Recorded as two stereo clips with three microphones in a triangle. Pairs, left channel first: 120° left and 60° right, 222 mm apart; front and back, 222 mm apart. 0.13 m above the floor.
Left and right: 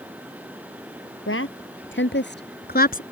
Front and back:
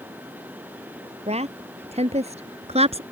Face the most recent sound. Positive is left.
turn(degrees=135)